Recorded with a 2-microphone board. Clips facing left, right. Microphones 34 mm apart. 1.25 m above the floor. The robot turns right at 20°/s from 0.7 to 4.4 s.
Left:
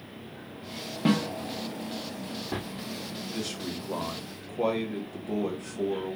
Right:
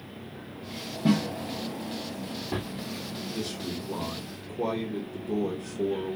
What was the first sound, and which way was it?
A snare drum, 55° left (ahead or behind).